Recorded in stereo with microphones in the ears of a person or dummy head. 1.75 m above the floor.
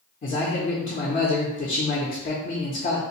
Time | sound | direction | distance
0.2 | a man speaking | 35° left (ahead or behind) | 0.5 m